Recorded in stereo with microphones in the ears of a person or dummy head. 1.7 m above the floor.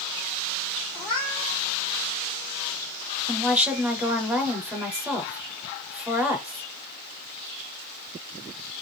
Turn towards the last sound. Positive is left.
turn(degrees=0)  # may be behind; listen again after turning